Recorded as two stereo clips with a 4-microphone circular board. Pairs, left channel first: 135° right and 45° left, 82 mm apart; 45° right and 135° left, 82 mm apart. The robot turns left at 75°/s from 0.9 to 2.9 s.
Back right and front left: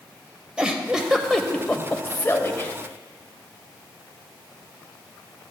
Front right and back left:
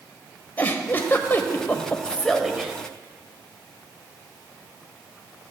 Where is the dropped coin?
No dropped coin in this recording.